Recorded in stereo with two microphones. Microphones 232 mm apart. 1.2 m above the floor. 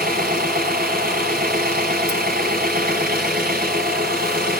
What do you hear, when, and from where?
0.0 s an engine running: 40° right (ahead or behind), 6 m